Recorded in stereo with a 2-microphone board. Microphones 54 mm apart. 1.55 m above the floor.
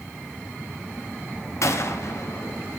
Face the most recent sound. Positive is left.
turn(degrees=65)  # may be behind; listen again after turning